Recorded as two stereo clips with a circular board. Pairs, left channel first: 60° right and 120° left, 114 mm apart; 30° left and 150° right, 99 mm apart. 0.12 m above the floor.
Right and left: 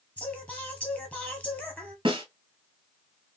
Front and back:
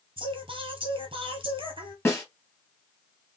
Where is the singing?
135° right, 1.3 m.